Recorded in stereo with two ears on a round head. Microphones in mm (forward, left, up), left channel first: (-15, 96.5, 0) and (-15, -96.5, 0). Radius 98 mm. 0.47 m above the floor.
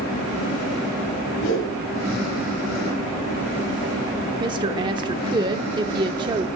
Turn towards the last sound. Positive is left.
turn(degrees=-20)  # may be behind; listen again after turning